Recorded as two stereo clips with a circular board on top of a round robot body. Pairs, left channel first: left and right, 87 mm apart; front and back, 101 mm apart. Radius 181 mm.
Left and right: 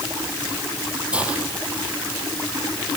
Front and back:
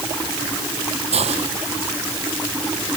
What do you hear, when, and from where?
1.1 s a hiss: 165° right